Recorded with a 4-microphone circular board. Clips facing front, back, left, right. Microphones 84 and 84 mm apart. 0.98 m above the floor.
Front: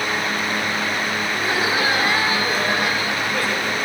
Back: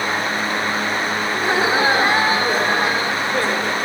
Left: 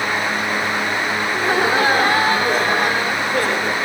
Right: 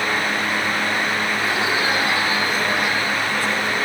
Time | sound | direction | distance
1.3 | laughter | 125° left | 2 m